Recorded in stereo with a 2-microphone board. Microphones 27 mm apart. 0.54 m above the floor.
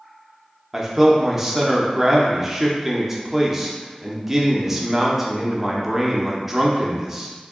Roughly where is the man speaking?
Centre.